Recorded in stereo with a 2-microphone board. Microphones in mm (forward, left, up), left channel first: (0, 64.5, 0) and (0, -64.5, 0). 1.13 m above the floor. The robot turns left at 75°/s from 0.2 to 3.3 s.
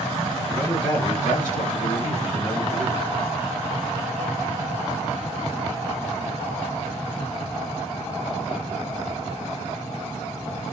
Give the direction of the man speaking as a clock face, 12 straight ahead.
6 o'clock.